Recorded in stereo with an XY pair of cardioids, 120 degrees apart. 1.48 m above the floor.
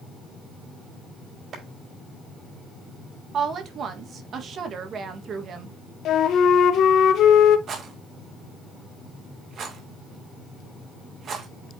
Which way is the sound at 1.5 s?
50° right.